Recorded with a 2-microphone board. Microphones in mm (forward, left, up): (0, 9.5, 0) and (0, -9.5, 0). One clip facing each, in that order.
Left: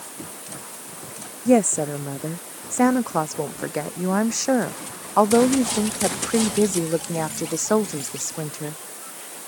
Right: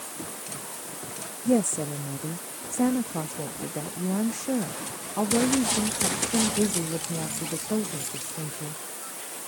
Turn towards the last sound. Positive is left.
turn(degrees=70)  # may be behind; listen again after turning